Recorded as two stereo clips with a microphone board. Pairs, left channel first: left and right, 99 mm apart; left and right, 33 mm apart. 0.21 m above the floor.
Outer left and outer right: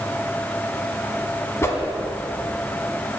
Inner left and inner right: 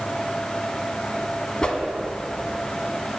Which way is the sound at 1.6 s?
25° left (ahead or behind).